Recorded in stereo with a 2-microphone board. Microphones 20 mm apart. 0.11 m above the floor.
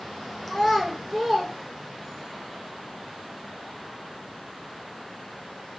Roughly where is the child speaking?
Left.